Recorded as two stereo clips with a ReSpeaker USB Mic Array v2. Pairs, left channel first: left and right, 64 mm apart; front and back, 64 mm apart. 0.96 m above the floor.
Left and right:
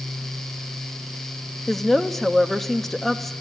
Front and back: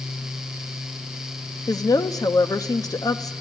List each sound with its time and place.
1.7 s a woman speaking: 5° left, 1.0 m